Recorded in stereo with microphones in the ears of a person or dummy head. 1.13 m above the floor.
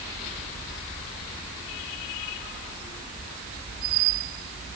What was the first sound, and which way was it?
Only background noise.